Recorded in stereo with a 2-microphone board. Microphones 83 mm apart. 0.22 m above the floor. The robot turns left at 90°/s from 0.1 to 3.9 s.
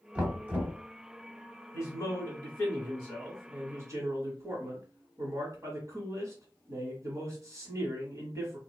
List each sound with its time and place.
0.1 s knocking: 10° right (ahead or behind), 1.1 m; by 0.8 s 25° right (ahead or behind), 1.1 m
1.7 s a man speaking: 115° left, 1.3 m; by 8.6 s 75° right, 1.3 m